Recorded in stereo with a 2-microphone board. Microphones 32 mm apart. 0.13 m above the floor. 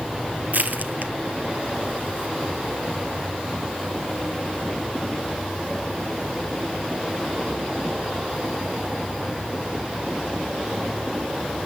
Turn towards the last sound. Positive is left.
turn(degrees=-65)  # may be behind; listen again after turning